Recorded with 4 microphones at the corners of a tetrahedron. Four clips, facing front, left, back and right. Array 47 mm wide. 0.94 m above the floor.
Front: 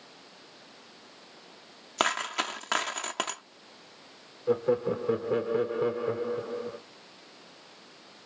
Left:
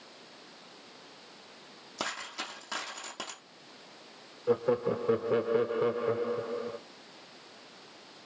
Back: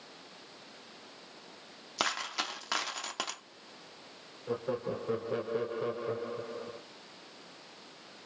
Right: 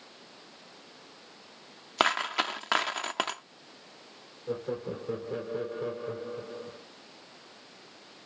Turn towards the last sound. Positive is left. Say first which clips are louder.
# left 7 dB, front 8 dB
turn(degrees=65)